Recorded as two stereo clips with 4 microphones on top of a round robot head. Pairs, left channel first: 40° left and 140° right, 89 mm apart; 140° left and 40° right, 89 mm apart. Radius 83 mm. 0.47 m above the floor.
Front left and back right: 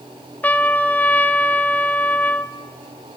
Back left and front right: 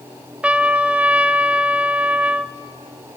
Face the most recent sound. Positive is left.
turn(degrees=5)